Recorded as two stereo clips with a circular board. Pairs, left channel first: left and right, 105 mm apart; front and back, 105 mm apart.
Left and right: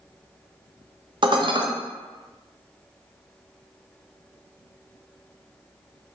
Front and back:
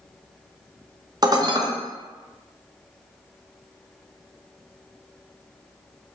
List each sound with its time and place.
1.2 s dishes clattering: 130° right, 0.5 m